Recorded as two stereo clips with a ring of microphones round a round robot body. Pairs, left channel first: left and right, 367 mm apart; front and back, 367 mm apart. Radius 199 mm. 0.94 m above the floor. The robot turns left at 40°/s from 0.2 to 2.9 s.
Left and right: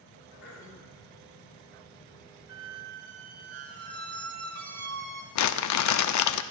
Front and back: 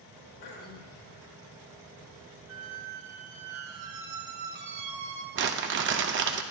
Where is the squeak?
135° right, 2 m; by 5.2 s 155° right, 2 m.